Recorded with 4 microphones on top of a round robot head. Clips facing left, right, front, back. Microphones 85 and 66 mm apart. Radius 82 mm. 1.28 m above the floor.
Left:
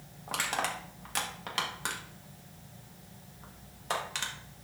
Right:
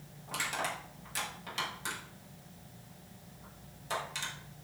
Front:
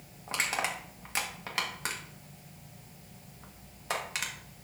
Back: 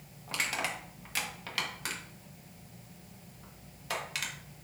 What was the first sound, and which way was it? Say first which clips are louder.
Crushing: left 3 dB, front 2 dB; 65° left.